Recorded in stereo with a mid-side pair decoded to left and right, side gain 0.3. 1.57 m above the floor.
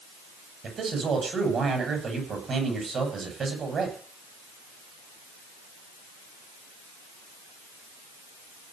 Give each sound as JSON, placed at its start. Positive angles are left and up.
{"t": 0.6, "sound": "a man speaking", "azimuth_deg": -70, "distance_m": 8.5}